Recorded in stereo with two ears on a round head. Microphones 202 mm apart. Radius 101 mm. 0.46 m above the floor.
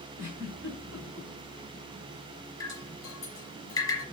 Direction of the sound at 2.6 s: 15° left (ahead or behind).